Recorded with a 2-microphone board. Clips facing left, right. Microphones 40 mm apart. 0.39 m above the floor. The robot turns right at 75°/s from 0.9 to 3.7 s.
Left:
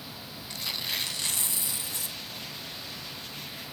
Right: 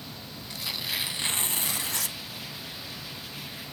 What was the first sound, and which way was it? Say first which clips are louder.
Tearing paper: right 1 dB; 175° right.